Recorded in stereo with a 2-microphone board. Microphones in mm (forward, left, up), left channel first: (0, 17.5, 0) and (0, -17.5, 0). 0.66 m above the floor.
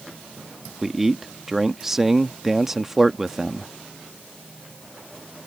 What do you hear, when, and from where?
0.8 s a man speaking: 10° right (ahead or behind)